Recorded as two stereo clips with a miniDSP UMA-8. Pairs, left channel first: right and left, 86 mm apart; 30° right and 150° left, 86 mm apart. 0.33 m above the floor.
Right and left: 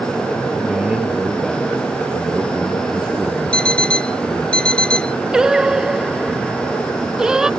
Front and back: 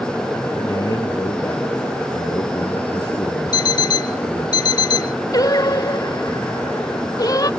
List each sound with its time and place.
0.6 s a man speaking: 10° left
3.5 s an alarm clock: 10° right
5.3 s singing: 10° left